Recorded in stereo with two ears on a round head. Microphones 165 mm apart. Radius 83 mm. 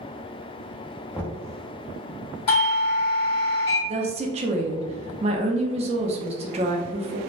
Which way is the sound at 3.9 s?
35° right (ahead or behind).